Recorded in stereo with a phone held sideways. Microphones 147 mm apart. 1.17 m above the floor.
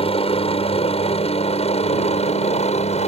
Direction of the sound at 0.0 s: 40° left (ahead or behind).